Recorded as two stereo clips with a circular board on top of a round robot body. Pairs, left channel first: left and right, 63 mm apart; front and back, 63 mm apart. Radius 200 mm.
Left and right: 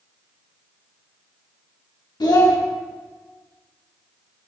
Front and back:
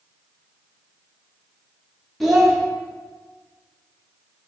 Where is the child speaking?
90° left, 0.5 m.